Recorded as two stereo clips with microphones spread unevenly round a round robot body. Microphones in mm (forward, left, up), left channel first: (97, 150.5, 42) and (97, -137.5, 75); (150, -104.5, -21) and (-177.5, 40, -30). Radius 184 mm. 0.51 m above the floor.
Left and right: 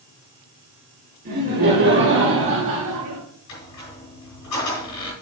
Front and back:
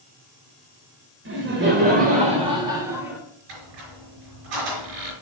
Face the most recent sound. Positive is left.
turn(degrees=130)